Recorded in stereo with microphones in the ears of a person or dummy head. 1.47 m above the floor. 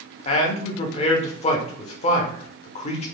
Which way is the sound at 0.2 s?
40° left (ahead or behind).